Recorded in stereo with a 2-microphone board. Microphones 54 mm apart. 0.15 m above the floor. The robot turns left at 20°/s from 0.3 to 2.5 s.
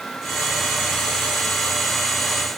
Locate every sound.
Only background noise.